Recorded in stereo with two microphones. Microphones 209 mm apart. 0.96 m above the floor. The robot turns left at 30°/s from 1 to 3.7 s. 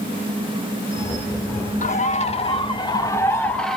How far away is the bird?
About 0.5 m.